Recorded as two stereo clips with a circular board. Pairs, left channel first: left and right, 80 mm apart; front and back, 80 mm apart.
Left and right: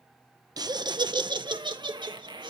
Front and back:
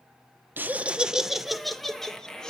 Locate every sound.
0.6 s laughter: 115° right, 0.8 m; by 2.5 s 80° right, 1.9 m